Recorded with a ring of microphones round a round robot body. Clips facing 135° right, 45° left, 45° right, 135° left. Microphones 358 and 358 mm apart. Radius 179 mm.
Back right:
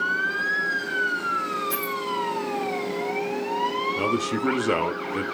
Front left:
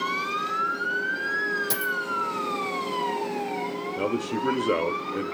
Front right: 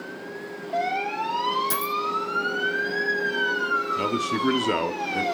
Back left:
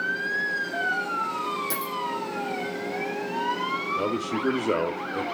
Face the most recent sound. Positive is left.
turn(degrees=-85)